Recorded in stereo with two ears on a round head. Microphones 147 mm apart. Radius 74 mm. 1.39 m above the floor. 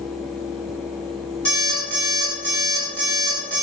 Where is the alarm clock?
10° left (ahead or behind), 1.7 m.